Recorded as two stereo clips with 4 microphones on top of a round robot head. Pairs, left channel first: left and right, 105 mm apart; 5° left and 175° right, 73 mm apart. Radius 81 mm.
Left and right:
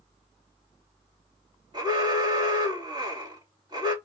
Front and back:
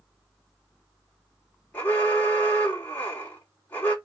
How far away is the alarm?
About 2.5 m.